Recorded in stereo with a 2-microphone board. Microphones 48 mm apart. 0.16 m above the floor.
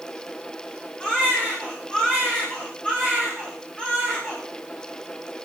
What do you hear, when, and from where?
1.0 s a baby crying: 20° left (ahead or behind), 7.5 m